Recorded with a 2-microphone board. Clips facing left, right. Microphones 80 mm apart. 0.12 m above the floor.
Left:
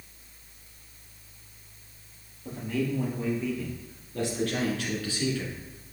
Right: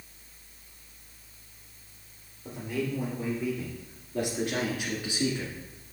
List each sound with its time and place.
2.5 s a man speaking: 10° right (ahead or behind), 3 m; by 5.9 s 20° right (ahead or behind), 1.5 m